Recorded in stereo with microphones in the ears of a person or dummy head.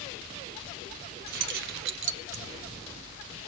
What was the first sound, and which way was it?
Keys jangling, 55° right (ahead or behind).